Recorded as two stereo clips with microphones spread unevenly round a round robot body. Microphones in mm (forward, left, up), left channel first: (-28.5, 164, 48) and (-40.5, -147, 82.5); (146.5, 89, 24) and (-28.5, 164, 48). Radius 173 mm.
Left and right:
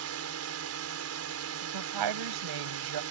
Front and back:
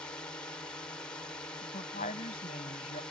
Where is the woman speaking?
90° right.